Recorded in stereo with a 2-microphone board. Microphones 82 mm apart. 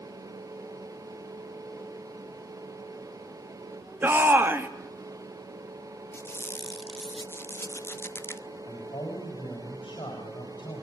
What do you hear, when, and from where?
4.0 s a shout: 25° right (ahead or behind), 2 m
6.1 s a squeak: 30° left (ahead or behind), 0.7 m
8.7 s a man speaking: 65° left (ahead or behind), 7 m